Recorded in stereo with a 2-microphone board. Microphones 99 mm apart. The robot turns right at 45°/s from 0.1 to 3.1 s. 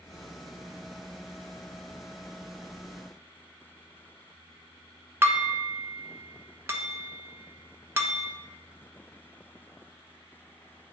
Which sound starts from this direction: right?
Dishes clattering, at 5.2 s.